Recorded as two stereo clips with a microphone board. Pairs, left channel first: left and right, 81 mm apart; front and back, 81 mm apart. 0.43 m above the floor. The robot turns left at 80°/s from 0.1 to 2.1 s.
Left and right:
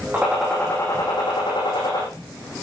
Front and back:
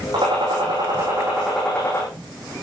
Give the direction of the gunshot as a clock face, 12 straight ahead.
5 o'clock.